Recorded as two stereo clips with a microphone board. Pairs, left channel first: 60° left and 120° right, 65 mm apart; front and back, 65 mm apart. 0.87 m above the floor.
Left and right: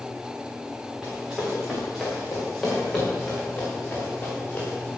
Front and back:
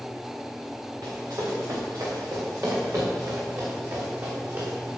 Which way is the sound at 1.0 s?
160° left.